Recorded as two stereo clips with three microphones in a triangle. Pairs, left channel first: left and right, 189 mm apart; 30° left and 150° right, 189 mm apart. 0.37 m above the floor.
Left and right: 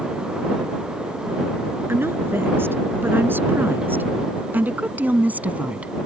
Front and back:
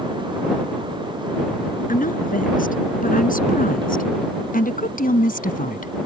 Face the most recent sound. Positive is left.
turn(degrees=-10)